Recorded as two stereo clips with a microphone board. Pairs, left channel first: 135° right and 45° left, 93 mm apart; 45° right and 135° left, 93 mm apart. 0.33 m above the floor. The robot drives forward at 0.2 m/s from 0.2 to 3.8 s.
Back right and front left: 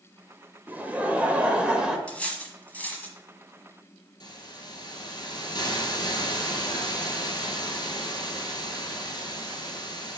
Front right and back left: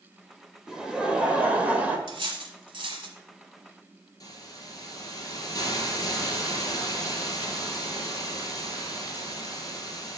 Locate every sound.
0.7 s laughter: 65° left, 1.0 m; by 2.0 s 110° left, 1.0 m
2.1 s cutlery clinking: 150° left, 1.2 m; by 3.1 s 155° left, 1.3 m
4.2 s a hiss: 100° right, 1.7 m